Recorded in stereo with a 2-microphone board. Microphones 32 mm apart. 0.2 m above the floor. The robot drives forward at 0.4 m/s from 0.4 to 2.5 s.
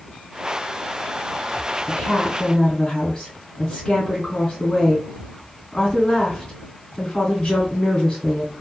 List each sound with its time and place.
1.9 s a woman speaking: 25° left (ahead or behind), 1.7 m